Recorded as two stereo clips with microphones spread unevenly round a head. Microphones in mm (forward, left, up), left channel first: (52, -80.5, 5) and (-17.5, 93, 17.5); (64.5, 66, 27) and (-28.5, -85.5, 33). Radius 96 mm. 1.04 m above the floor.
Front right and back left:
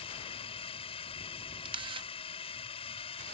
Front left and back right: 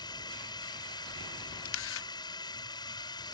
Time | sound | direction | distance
0.0 | a drone | 10° right | ?
1.6 | a camera shutter | 50° left | ?